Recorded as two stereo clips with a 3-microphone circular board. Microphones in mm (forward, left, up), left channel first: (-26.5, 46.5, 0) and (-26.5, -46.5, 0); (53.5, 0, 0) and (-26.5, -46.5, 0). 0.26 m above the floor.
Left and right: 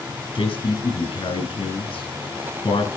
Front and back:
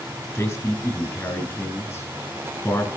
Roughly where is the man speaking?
Left.